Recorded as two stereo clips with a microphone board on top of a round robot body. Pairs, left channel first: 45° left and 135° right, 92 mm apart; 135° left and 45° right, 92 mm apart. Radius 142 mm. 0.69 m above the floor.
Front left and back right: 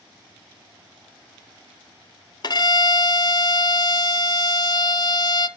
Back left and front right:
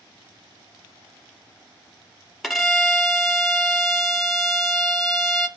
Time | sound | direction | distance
2.4 | a violin | 50° left | 1.2 m